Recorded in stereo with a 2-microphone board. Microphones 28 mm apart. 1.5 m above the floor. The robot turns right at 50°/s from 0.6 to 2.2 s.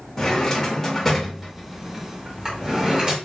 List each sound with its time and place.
0.2 s a drawer: 10° left (ahead or behind), 1.0 m; by 3.1 s 25° right (ahead or behind), 1.0 m